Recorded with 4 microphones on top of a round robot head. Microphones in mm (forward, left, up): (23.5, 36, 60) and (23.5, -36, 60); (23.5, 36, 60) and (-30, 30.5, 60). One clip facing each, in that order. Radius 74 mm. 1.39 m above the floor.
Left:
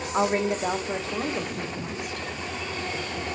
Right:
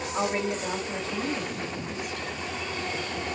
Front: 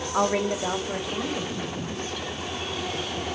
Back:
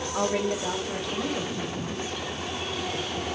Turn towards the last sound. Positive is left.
turn(degrees=110)